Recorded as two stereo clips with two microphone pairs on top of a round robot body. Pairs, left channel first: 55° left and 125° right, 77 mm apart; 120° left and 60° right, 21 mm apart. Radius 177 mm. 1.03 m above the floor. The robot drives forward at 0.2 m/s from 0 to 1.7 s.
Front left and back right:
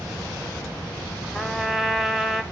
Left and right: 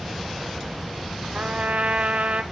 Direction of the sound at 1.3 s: 40° right.